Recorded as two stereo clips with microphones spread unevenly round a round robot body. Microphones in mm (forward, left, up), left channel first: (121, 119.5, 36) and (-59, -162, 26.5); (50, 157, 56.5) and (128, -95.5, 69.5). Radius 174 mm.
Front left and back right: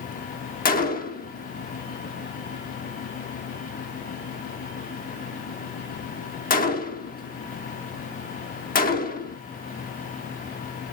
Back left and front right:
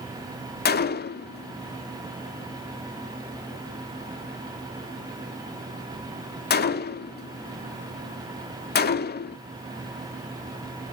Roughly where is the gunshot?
Left.